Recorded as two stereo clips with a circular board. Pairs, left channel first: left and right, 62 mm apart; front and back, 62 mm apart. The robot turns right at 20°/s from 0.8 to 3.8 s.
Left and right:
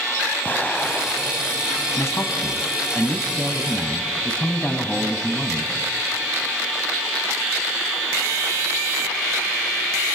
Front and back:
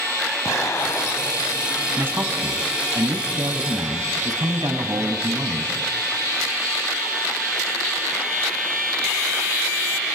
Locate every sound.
0.5 s an explosion: 30° left, 2.5 m; by 1.5 s 45° left, 2.5 m
2.0 s a man speaking: 125° left, 2.5 m; by 5.7 s 165° left, 2.5 m